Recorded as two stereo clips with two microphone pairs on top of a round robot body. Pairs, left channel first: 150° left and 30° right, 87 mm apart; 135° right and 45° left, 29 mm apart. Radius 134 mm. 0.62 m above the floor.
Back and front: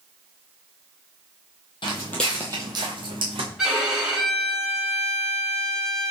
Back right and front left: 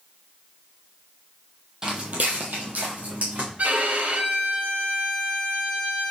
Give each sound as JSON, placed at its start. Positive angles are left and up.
{"t": 1.8, "sound": "footsteps", "azimuth_deg": 120, "distance_m": 1.0}
{"t": 3.6, "sound": "a violin", "azimuth_deg": 50, "distance_m": 2.0}